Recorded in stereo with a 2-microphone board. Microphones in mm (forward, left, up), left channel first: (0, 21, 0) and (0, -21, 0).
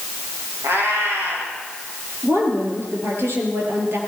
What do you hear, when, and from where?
0.6 s a cat meowing: 75° right (ahead or behind), 6.5 m
2.2 s a woman speaking: 65° right (ahead or behind), 5 m